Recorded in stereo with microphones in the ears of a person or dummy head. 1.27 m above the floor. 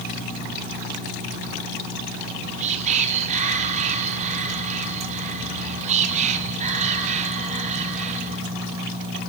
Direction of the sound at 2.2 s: 40° right (ahead or behind).